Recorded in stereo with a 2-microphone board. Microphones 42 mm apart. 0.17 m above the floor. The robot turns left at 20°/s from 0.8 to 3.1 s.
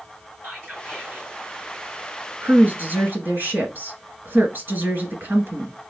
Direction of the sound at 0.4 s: 45° right (ahead or behind).